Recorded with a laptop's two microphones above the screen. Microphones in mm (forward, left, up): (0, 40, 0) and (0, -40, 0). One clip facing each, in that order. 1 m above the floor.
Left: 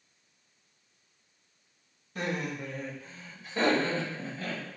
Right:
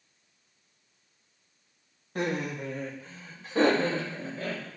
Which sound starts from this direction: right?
Laughter, at 2.1 s.